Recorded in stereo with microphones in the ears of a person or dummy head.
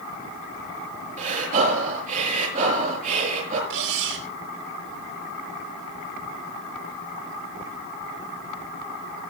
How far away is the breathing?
About 5.5 m.